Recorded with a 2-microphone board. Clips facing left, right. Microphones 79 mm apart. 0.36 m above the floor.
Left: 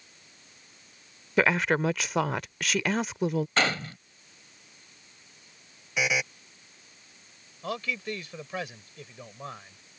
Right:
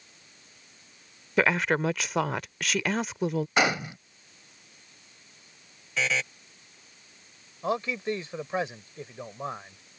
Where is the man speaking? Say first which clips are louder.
Right 5 dB; 25° right (ahead or behind).